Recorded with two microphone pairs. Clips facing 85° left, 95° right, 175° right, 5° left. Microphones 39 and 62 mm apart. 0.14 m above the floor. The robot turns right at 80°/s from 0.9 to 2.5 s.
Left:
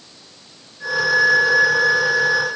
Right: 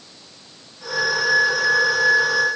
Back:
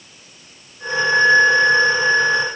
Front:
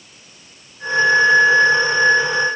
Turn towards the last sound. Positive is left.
No sound to turn to.